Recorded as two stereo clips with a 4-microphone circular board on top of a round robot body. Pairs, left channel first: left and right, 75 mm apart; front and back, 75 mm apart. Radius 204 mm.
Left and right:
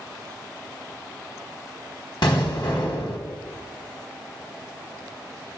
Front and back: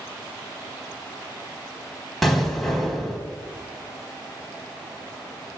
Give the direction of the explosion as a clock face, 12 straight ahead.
9 o'clock.